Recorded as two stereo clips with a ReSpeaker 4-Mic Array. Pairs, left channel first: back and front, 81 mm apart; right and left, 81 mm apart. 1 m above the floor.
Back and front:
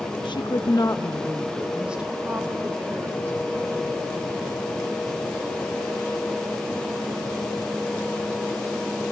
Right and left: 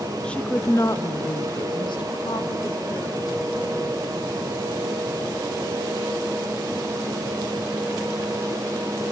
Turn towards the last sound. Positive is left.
turn(degrees=-45)